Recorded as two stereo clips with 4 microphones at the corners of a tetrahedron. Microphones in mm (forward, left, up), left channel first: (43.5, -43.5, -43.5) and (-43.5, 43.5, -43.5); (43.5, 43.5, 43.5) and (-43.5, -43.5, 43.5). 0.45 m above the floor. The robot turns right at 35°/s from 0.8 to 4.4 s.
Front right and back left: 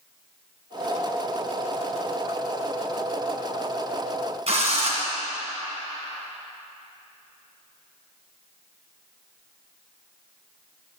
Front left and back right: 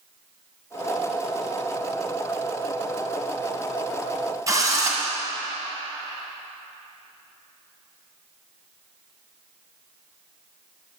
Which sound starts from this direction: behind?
A drill, at 4.5 s.